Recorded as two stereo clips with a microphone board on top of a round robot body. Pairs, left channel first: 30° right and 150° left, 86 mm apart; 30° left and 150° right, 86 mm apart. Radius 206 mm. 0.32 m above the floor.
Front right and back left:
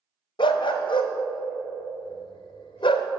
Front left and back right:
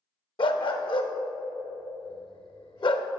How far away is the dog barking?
About 0.6 m.